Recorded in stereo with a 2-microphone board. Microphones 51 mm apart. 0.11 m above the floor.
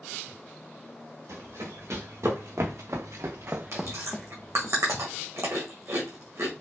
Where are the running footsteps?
80° right, 2.5 m; by 4.7 s 40° left (ahead or behind), 1.1 m.